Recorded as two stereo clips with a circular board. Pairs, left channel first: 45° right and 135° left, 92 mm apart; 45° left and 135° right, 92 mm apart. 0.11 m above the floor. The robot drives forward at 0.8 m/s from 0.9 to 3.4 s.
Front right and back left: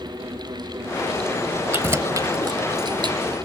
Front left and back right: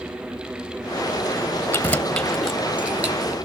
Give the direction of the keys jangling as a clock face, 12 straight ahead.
9 o'clock.